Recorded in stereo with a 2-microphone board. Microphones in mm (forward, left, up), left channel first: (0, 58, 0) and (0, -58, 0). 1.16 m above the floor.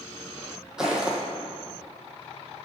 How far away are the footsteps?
About 1.6 m.